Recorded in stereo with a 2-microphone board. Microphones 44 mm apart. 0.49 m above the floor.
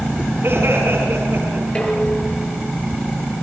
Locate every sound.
0.4 s laughter: 60° right (ahead or behind), 6 m
1.8 s dishes clattering: 25° left (ahead or behind), 6 m